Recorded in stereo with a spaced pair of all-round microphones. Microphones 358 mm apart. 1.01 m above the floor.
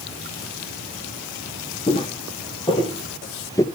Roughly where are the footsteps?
Centre.